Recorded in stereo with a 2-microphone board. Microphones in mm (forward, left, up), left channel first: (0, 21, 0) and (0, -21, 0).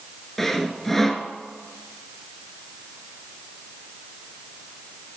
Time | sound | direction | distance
0.4 | sawing | 5° left (ahead or behind) | 0.8 m